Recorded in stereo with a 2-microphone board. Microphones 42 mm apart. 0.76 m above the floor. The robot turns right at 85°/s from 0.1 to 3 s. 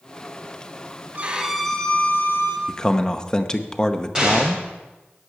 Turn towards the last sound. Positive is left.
turn(degrees=-20)  # may be behind; listen again after turning